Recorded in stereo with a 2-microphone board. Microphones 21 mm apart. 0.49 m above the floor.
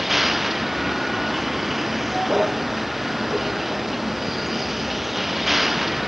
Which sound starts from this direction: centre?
A vehicle, at 0.0 s.